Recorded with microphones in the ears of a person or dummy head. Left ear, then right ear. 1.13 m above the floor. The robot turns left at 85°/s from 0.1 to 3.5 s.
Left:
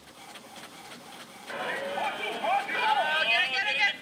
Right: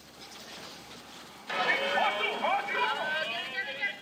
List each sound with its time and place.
1.5 s a shout: 75° right, 1.7 m; by 3.9 s 110° left, 1.7 m